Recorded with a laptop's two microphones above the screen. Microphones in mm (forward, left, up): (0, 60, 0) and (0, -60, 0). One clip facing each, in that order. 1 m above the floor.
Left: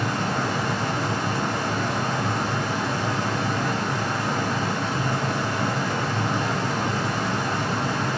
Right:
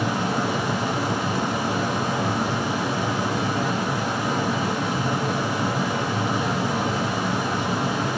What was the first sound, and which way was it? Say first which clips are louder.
A fan: right 2 dB; 10° right (ahead or behind).